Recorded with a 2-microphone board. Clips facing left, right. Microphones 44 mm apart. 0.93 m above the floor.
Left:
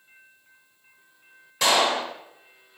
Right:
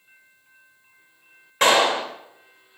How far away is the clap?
About 3 m.